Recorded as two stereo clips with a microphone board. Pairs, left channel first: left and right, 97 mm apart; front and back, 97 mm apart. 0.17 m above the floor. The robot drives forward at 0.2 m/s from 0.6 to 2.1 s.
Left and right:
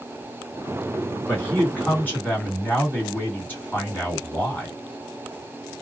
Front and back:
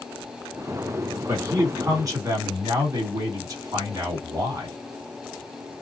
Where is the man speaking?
150° left, 1.9 m.